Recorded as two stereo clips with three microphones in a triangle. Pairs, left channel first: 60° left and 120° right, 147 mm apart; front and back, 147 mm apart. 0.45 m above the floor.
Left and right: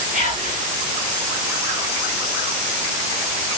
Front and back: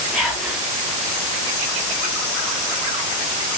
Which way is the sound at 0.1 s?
100° right.